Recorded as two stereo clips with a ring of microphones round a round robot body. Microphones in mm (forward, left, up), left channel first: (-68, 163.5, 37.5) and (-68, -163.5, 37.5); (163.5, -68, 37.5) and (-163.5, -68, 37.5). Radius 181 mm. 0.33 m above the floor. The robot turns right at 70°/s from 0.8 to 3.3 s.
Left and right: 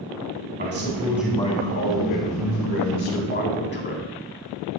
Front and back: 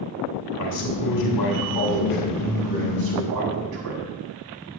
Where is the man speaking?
30° right, 3 m; by 4.1 s 145° left, 3 m.